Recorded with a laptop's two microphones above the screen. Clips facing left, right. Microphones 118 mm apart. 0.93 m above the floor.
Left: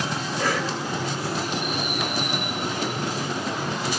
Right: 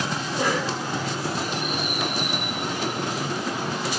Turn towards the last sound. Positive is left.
turn(degrees=-20)  # may be behind; listen again after turning